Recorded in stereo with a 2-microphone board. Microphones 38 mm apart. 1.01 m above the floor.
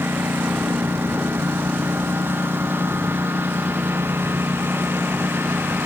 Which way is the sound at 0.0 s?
90° right.